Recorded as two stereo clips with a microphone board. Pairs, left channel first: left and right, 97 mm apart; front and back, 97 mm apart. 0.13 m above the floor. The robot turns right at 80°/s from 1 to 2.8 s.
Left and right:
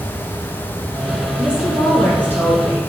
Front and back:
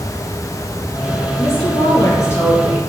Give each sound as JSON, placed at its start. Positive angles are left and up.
{"t": 1.4, "sound": "a woman speaking", "azimuth_deg": -35, "distance_m": 1.5}